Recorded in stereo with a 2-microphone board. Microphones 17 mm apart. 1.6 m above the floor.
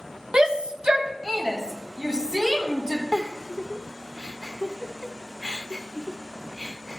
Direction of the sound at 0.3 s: 70° right (ahead or behind).